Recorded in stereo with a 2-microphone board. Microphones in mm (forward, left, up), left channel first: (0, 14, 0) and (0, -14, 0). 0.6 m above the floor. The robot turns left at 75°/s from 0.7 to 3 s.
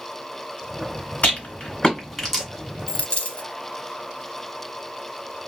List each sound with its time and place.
1.2 s a rattle: 60° left (ahead or behind), 1.5 m; by 2.4 s 5° right (ahead or behind), 1.5 m
2.9 s a dropped coin: 45° left (ahead or behind), 0.6 m; by 3.5 s 50° left (ahead or behind), 0.6 m